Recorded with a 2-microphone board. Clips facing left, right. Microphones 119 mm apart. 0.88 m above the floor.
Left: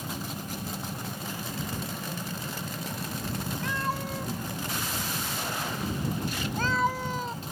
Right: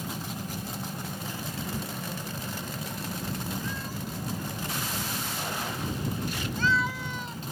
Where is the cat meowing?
85° left; by 7.4 s 40° left (ahead or behind).